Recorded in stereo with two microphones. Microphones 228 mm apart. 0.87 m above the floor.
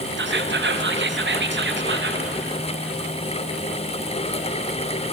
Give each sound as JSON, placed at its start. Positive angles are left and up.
{"t": 0.2, "sound": "whispering", "side_deg": -55, "distance_m": 0.6}